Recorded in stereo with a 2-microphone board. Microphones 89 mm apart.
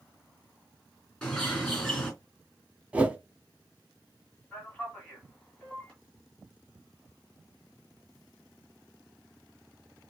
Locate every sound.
1.2 s a bird: 10° left (ahead or behind), 3 m
2.9 s a whoosh: 15° right (ahead or behind), 0.9 m
4.5 s a man speaking: 10° left (ahead or behind), 1.8 m